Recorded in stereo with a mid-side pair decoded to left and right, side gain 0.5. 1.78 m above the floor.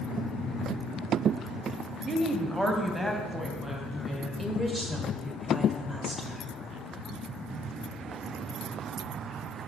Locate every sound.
2.1 s a woman speaking: 5° right, 1.0 m; by 4.3 s 20° right, 3 m
4.4 s a woman speaking: 25° right, 1.7 m